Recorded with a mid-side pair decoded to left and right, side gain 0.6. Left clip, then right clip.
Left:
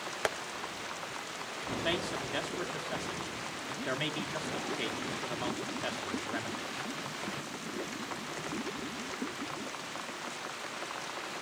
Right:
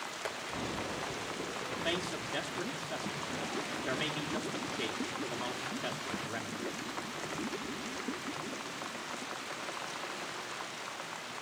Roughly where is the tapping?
Ahead left.